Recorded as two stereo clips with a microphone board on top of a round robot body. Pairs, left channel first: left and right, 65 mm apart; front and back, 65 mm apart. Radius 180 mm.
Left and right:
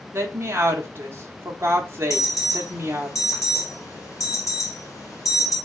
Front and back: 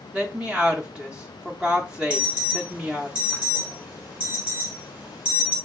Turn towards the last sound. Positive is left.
turn(degrees=115)